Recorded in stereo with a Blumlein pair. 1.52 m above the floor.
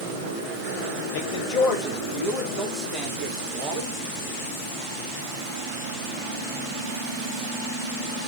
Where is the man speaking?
45° left, 1.4 m; by 4.0 s 10° left, 4.5 m.